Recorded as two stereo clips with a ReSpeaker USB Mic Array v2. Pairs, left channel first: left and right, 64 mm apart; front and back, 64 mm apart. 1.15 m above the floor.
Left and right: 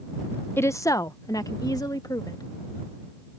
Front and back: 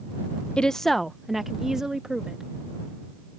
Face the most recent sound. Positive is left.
turn(degrees=100)